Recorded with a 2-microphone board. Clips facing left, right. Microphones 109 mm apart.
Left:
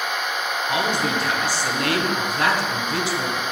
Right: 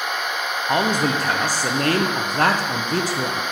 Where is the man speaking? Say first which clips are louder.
Right 4 dB; 45° right (ahead or behind), 0.9 m.